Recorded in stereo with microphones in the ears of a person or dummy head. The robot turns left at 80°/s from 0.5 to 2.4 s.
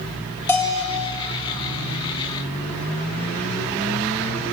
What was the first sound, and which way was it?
A bell, 170° left.